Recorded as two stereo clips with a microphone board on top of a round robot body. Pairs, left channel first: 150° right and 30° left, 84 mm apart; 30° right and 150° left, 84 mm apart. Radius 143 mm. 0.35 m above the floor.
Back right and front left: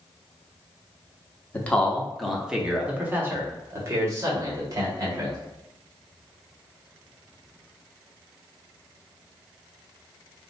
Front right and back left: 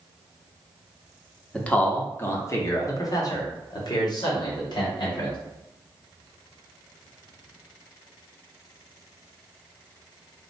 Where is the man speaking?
100° right, 1.2 m; by 5.4 s 10° right, 2.5 m.